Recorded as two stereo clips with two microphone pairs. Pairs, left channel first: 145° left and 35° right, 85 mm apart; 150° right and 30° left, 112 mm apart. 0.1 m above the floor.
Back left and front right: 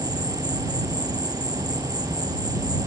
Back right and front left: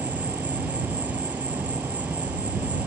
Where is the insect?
45° right.